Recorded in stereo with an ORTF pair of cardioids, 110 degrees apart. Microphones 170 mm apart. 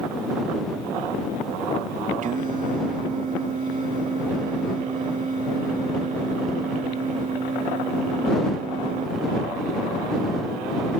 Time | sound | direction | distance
2.2 | singing | 50° right | ?